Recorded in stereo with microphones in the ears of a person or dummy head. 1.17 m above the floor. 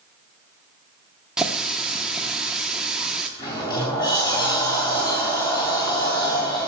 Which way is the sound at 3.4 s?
25° left (ahead or behind).